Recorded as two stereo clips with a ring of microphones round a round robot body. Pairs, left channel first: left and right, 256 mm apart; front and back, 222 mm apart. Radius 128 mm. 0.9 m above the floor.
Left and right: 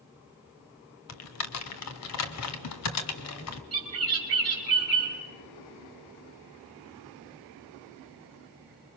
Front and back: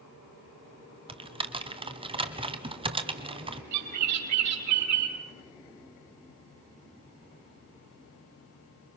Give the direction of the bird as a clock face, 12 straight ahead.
5 o'clock.